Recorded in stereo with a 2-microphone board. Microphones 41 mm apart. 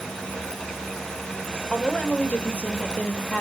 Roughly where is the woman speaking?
Left.